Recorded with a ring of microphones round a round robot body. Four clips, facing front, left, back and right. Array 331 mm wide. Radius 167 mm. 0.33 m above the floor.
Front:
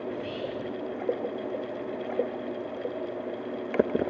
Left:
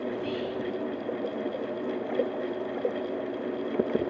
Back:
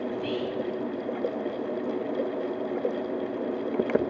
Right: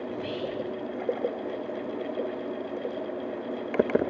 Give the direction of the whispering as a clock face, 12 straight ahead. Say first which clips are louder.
Left 1 dB, back 3 dB; 5 o'clock.